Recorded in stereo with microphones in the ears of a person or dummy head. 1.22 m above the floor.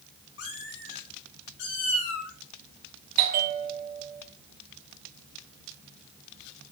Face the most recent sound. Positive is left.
turn(degrees=-40)  # may be behind; listen again after turning